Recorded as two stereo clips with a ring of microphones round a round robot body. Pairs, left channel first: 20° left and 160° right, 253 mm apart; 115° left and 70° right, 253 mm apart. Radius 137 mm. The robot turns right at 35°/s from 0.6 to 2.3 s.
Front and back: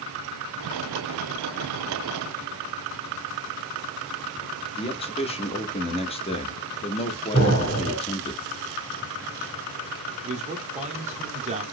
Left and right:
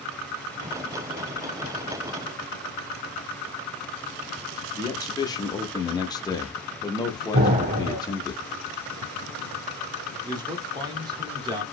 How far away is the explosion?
About 1.9 m.